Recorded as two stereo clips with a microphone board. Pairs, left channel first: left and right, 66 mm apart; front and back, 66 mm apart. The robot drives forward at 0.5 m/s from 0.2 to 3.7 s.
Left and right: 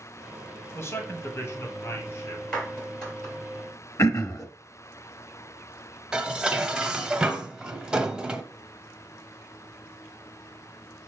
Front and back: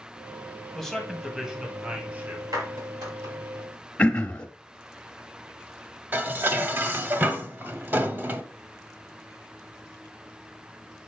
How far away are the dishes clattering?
About 0.7 m.